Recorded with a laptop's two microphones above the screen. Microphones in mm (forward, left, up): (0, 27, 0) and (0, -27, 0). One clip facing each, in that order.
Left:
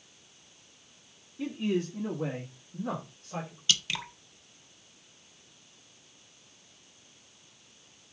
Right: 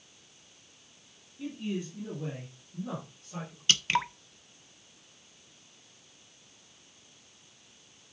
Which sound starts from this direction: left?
A man speaking, at 1.4 s.